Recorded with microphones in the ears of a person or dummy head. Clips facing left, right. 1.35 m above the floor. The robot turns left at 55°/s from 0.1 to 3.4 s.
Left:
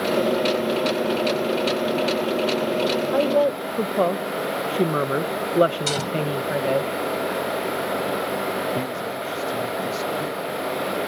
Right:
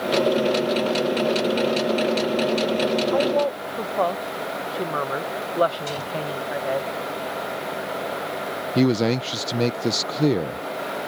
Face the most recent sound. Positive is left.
turn(degrees=-75)  # may be behind; listen again after turning